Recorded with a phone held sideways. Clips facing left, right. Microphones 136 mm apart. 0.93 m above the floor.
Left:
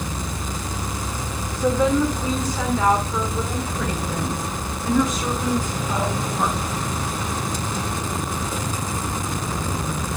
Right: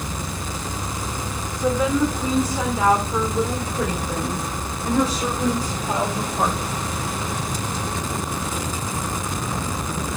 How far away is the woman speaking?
About 2 m.